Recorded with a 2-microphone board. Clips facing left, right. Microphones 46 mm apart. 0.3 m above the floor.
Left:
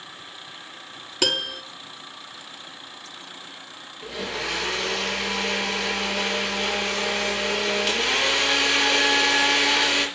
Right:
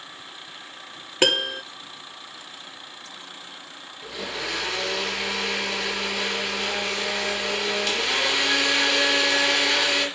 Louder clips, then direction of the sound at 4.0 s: Left 2 dB; 5° left (ahead or behind).